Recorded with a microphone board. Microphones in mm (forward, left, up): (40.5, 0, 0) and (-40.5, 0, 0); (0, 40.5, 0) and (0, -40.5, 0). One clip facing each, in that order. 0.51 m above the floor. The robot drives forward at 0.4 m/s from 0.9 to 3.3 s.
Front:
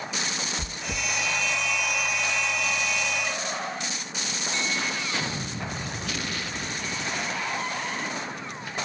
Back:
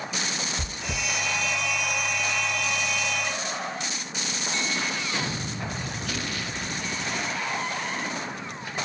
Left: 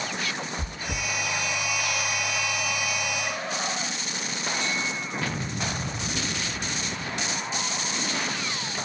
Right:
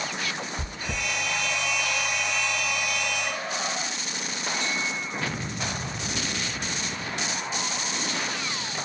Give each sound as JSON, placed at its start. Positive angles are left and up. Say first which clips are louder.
{"t": 0.6, "sound": "chewing", "louder": "even, even", "azimuth_deg": -120, "distance_m": 1.3}